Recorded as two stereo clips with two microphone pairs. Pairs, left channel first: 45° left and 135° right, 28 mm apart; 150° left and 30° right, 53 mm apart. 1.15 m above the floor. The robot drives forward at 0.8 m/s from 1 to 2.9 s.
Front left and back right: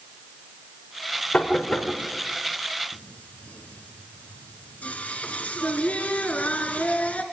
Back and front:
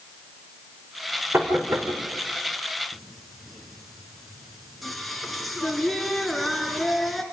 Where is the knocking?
15° left, 4.5 m.